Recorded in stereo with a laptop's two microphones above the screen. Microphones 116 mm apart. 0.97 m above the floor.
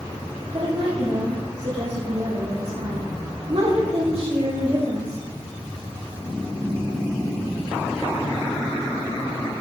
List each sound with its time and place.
0.5 s a woman speaking: 65° right (ahead or behind), 3.5 m